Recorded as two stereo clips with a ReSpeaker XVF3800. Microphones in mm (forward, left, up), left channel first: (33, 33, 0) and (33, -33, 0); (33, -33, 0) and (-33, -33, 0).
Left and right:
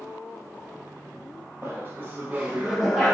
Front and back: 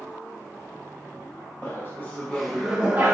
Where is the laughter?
45° right, 1.1 m; by 3.1 s 165° left, 0.7 m.